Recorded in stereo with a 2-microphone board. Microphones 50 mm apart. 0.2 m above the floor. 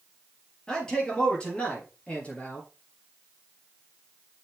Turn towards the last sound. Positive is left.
turn(degrees=30)  # may be behind; listen again after turning